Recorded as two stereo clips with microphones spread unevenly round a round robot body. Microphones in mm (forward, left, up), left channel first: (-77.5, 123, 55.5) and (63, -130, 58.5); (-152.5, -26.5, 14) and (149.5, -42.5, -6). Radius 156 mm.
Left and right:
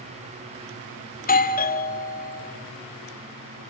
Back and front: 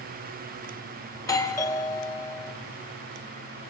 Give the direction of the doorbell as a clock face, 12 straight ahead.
9 o'clock.